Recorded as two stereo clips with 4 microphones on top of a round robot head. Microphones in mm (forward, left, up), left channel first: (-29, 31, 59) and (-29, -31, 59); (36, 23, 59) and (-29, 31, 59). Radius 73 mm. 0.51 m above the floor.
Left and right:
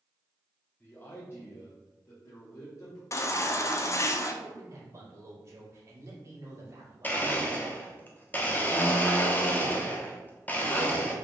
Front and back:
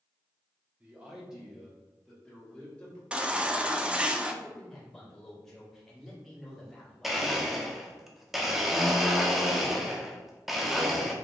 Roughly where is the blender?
Left.